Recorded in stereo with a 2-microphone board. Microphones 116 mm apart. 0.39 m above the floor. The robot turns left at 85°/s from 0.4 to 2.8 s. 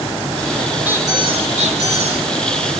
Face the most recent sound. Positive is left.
turn(degrees=180)